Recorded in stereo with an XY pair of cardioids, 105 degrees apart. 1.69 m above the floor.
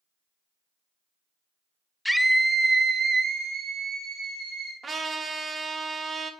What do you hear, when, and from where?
2.0 s a scream: 5° left, 0.7 m; by 4.7 s 75° right, 1.7 m
4.8 s a trumpet: 40° right, 1.0 m